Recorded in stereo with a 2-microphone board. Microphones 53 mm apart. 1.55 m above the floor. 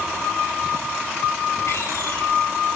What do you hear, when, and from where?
1.7 s a door slam: 70° left (ahead or behind), 3.5 m